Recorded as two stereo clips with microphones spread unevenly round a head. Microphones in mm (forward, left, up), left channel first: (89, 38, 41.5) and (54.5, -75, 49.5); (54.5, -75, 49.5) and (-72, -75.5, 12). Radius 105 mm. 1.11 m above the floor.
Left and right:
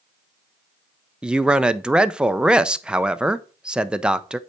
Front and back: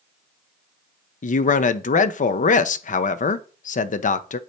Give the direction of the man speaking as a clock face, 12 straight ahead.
1 o'clock.